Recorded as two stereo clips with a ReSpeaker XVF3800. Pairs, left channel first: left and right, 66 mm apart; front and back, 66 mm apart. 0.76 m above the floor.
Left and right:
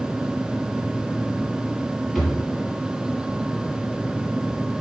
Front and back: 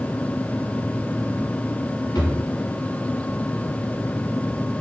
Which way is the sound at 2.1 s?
Straight ahead.